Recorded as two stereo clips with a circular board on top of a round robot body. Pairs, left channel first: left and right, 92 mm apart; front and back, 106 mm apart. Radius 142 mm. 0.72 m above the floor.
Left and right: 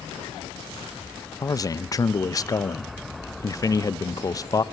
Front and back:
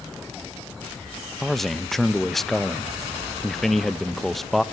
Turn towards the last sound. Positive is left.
turn(degrees=90)